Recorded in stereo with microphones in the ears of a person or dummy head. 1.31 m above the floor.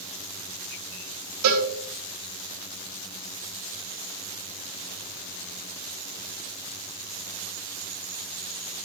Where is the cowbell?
80° right, 3.5 m.